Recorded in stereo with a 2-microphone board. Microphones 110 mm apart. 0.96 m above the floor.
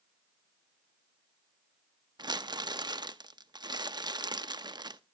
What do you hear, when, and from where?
2.2 s crumpling: 40° right (ahead or behind), 0.6 m